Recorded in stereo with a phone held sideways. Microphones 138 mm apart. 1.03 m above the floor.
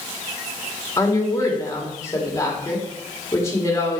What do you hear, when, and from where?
1.0 s a woman speaking: 20° left (ahead or behind), 1.8 m